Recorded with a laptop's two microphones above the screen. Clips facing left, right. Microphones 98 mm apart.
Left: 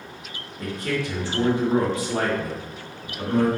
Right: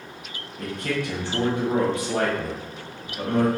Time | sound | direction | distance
0.6 | a man speaking | 60° right (ahead or behind) | 1.3 m